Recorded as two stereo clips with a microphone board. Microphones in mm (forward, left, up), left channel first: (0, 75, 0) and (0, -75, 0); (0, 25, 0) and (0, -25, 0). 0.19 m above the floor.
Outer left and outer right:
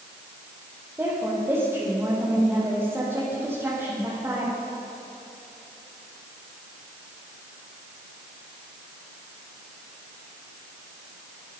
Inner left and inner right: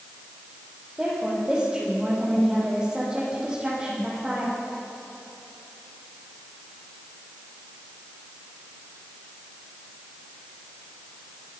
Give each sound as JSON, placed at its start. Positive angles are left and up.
{"t": 1.0, "sound": "a woman speaking", "side_deg": -15, "distance_m": 9.5}